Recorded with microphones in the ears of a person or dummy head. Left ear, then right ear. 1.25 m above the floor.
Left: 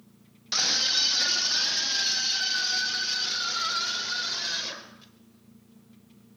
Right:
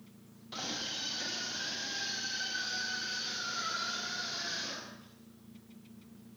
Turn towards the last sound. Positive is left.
turn(degrees=45)  # may be behind; listen again after turning